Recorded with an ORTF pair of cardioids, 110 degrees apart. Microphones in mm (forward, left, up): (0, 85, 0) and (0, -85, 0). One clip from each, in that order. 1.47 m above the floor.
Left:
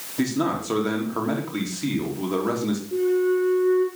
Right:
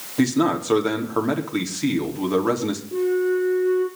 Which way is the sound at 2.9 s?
10° right.